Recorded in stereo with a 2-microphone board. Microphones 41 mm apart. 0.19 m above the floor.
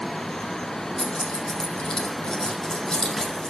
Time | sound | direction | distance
1.0 | keys jangling | 10° left (ahead or behind) | 5 m